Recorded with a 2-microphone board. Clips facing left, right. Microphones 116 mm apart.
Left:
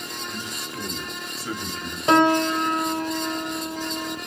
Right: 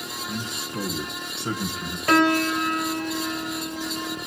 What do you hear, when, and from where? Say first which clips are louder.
0.3 s a man speaking: right 2 dB; 30° right (ahead or behind), 3 m
2.1 s a piano: left 2 dB; 25° left (ahead or behind), 1.2 m